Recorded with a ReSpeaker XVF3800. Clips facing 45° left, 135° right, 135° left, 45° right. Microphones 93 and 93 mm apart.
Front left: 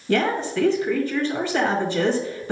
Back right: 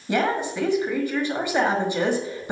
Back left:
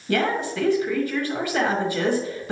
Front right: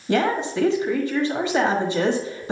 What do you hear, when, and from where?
0.1 s a woman speaking: 80° right, 1.3 m